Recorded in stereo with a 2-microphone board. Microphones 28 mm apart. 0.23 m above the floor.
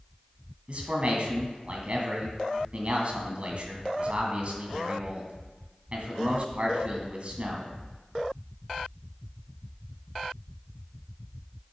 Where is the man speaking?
45° right (ahead or behind), 1.8 m.